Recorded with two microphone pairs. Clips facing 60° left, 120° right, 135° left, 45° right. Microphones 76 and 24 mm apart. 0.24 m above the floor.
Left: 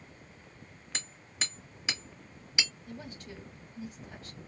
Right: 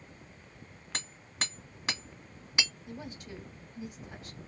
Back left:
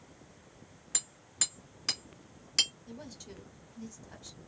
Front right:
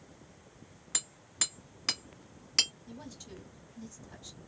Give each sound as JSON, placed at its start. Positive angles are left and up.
{"t": 0.9, "sound": "hammering", "azimuth_deg": -115, "distance_m": 1.6}
{"t": 2.9, "sound": "a woman speaking", "azimuth_deg": -170, "distance_m": 1.7}